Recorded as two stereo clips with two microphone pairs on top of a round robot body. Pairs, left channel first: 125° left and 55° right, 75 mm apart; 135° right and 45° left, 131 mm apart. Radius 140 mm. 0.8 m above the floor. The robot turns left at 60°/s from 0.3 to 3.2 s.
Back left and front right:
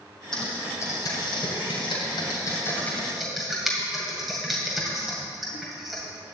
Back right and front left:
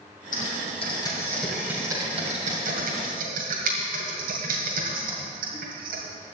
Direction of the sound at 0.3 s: 150° right.